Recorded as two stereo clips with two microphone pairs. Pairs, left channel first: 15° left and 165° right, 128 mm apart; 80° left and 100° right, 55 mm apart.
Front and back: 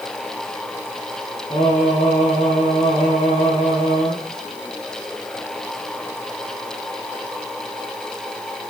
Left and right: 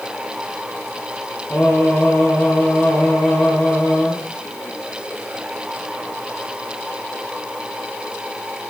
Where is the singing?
30° left, 7 m.